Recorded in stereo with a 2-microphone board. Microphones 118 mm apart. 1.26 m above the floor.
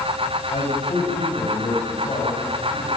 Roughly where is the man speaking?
Left.